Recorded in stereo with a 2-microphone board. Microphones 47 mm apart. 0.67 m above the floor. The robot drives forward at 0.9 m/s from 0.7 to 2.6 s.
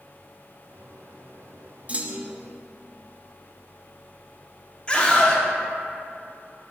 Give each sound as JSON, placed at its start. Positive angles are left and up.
{"t": 1.9, "sound": "a clunk", "side_deg": -30, "distance_m": 0.5}
{"t": 4.9, "sound": "a scream", "side_deg": 20, "distance_m": 1.1}